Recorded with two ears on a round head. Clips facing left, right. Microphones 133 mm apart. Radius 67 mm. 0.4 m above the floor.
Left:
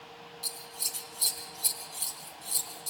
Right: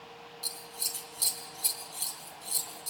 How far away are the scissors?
About 2.5 m.